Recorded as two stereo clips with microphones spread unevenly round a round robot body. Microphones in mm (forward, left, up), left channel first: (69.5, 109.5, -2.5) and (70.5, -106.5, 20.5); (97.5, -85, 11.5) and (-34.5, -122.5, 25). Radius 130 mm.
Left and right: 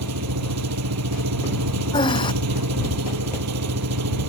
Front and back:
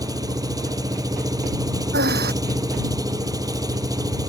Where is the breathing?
165° left.